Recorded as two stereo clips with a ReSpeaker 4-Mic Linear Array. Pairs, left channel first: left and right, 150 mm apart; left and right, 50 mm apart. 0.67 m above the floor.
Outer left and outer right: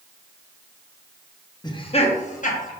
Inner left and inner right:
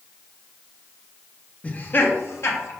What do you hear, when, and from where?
1.6 s laughter: 25° left (ahead or behind), 0.5 m; by 2.7 s 60° left (ahead or behind), 0.9 m